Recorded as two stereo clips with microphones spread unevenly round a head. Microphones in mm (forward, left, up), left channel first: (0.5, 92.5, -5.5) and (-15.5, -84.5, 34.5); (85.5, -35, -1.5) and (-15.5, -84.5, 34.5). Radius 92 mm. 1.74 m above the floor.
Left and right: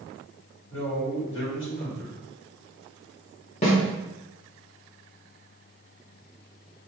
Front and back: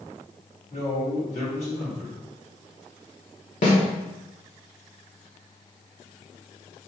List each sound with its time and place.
0.7 s a man speaking: 65° left, 1.9 m
3.6 s a snare drum: 25° left, 1.2 m